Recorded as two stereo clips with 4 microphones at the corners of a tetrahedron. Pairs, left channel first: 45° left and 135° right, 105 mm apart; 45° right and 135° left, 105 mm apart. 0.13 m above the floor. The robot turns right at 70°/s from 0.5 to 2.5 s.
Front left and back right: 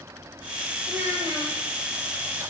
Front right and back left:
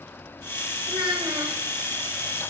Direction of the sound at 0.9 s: 155° left.